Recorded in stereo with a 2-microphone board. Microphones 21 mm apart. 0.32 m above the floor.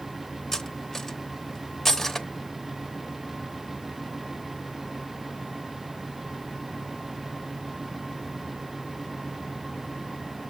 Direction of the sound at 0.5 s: 20° left (ahead or behind).